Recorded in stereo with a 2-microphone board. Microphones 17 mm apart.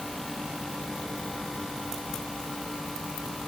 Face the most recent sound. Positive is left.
No sound to turn to.